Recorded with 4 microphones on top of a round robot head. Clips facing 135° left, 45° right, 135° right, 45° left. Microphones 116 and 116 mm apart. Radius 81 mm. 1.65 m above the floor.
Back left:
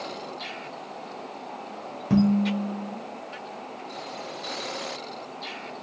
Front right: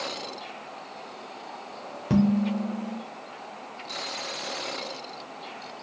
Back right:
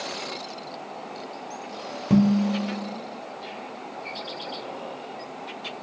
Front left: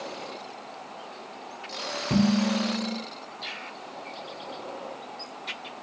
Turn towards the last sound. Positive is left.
turn(degrees=-105)